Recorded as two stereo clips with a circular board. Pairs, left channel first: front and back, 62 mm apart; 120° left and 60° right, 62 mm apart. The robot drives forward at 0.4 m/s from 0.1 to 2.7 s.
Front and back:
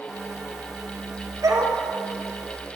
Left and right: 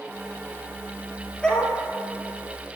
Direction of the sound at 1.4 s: 165° right.